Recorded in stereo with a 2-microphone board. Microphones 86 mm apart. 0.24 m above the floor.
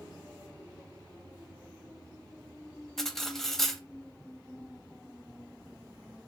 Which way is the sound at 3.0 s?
5° left (ahead or behind).